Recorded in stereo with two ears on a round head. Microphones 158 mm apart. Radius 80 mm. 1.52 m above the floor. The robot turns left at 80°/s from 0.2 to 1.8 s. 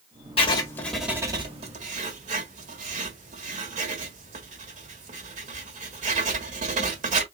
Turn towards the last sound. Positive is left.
turn(degrees=-45)  # may be behind; listen again after turning